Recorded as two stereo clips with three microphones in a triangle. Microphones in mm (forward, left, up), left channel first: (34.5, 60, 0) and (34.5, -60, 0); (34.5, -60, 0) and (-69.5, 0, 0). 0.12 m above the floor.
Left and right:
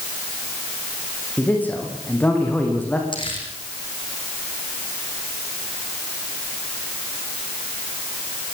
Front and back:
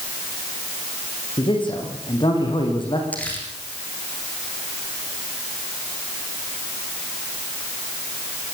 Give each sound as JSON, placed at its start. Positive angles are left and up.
{"t": 1.4, "sound": "a man speaking", "azimuth_deg": 15, "distance_m": 9.0}
{"t": 3.1, "sound": "crumpling", "azimuth_deg": 45, "distance_m": 6.5}